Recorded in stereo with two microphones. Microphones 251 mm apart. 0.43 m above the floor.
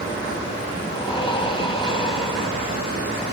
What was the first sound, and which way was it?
Breathing, 20° left (ahead or behind).